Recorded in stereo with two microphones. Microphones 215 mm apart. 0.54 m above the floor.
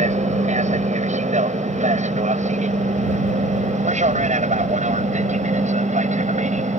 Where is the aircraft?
35° right (ahead or behind).